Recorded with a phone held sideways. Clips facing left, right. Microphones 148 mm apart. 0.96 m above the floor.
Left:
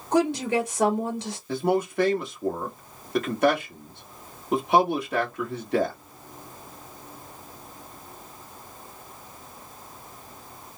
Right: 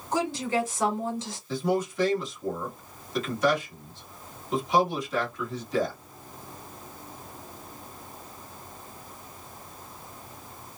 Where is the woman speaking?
65° left (ahead or behind), 2.5 m.